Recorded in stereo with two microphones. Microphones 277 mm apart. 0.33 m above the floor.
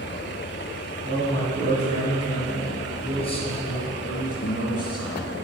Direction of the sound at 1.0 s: 20° left (ahead or behind).